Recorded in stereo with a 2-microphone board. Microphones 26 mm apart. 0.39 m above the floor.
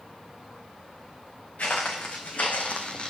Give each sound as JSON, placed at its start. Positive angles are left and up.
{"t": 1.6, "sound": "footsteps", "side_deg": 80, "distance_m": 2.0}